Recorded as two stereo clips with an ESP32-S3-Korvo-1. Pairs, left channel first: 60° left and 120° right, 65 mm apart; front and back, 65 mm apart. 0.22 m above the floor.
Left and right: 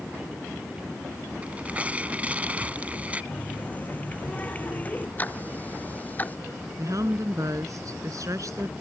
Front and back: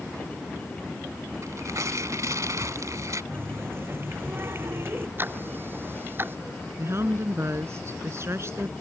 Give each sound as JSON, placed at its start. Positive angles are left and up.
{"t": 1.4, "sound": "tearing paper", "azimuth_deg": 175}
{"t": 3.3, "sound": "a running tap", "azimuth_deg": 125}
{"t": 5.2, "sound": "ticking", "azimuth_deg": 120}
{"t": 6.8, "sound": "a woman speaking", "azimuth_deg": -140}